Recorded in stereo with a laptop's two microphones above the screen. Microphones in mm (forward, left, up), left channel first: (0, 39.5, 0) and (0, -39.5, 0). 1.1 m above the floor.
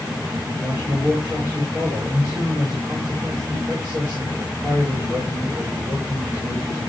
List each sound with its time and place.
0.6 s a man speaking: 50° right (ahead or behind), 6 m